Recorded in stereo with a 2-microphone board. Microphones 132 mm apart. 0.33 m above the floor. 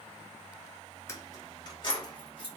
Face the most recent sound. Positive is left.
turn(degrees=40)  # may be behind; listen again after turning